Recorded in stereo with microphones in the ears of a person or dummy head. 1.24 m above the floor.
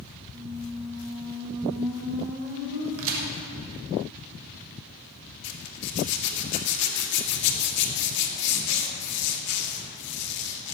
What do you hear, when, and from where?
0.3 s a squeak: 85° right, 3.5 m
3.0 s a crack: 65° right (ahead or behind), 2.5 m
5.4 s a zipper: 60° left (ahead or behind), 2 m